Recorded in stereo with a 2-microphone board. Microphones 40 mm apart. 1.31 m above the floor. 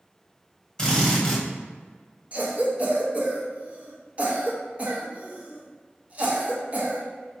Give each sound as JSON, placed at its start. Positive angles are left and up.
{"t": 0.8, "sound": "a drill", "side_deg": 15, "distance_m": 1.2}
{"t": 2.3, "sound": "a cough", "side_deg": -35, "distance_m": 0.9}